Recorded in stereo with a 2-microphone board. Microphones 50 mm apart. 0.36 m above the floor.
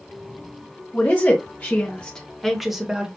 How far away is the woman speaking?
About 1.3 m.